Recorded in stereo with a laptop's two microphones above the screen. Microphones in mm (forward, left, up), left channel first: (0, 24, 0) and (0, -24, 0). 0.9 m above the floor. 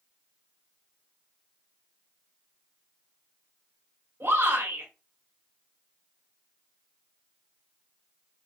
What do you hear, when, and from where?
4.2 s a shout: 80° right, 3.5 m